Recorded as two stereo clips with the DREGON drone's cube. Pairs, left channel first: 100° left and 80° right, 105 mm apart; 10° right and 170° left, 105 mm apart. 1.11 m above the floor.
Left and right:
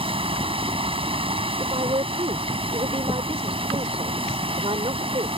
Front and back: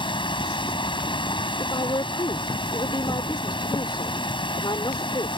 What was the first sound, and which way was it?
Running water, 50° right.